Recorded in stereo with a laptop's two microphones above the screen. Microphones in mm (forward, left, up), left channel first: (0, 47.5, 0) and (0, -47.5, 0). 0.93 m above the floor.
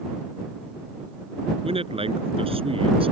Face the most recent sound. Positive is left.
turn(degrees=-80)